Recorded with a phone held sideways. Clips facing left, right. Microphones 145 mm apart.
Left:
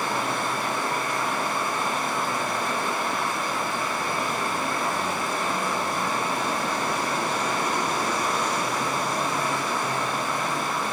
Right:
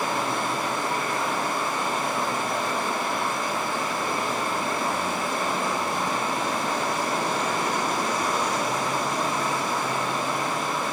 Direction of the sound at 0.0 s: 60° right (ahead or behind).